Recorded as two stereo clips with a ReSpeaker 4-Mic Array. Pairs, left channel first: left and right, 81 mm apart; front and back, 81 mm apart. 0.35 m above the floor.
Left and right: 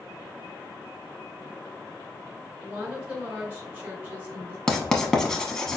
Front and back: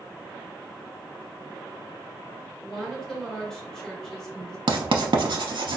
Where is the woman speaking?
65° right, 0.8 m.